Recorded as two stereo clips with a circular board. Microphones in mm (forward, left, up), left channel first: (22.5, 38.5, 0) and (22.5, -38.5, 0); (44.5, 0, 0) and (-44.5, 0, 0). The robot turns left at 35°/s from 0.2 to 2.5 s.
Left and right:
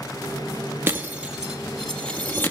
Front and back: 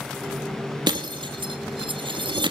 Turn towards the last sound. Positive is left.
turn(degrees=150)